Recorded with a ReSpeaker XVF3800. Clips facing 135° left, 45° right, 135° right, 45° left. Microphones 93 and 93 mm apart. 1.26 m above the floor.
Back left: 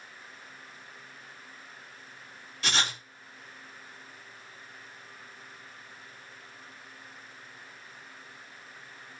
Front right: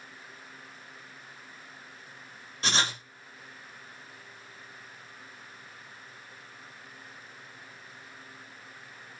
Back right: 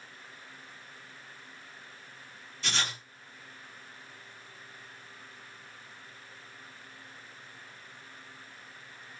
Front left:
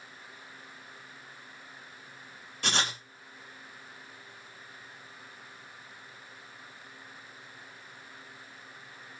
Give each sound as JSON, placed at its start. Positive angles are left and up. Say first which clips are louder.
{"t": 2.6, "sound": "writing", "louder": "front right 1 dB, front left 3 dB", "azimuth_deg": 10, "distance_m": 2.5}